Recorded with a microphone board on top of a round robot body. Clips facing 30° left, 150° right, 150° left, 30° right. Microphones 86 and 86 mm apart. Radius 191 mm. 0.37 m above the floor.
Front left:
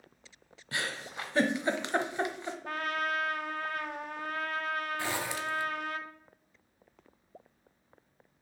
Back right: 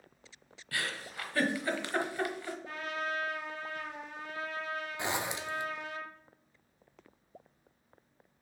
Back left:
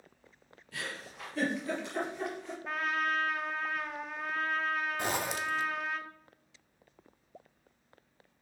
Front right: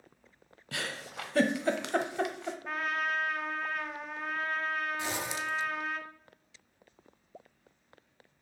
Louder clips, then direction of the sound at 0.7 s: Front left 1 dB, front right 3 dB; 40° right.